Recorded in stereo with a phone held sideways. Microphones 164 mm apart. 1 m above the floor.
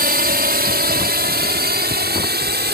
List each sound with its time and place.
0.0 s a drone: 60° right (ahead or behind); by 2.7 s 70° right (ahead or behind)